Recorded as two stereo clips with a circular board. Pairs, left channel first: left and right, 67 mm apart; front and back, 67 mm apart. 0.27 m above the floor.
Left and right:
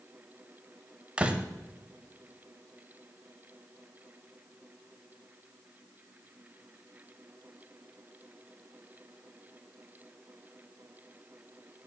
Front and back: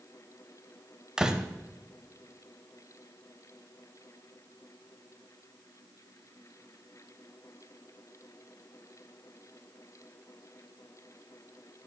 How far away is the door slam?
About 0.7 m.